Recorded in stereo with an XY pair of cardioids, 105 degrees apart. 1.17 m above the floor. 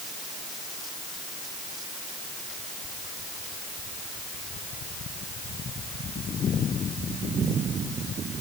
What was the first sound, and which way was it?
Only background noise.